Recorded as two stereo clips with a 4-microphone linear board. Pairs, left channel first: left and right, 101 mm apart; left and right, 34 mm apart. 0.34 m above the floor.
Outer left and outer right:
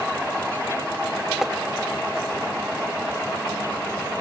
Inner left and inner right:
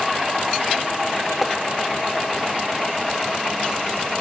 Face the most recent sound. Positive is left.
turn(degrees=-5)  # may be behind; listen again after turning